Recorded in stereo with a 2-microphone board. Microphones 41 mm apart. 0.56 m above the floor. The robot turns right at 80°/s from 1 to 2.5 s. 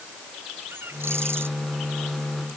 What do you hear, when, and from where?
0.7 s a bird: 105° right; by 1.5 s 65° right